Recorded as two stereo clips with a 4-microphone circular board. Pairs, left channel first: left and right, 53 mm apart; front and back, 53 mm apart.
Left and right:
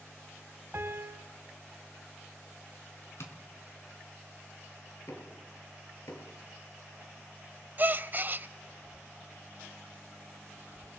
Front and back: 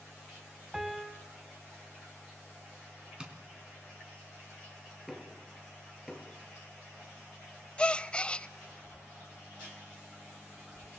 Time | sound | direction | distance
0.7 | a piano | 105° right | 1.5 m
3.2 | tapping | 110° left | 3 m
5.1 | knocking | 95° left | 4 m
7.8 | a gasp | 60° right | 0.6 m